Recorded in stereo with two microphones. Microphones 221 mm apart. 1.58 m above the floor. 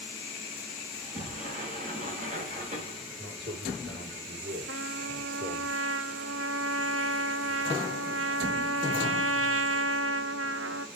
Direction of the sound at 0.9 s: 35° right (ahead or behind).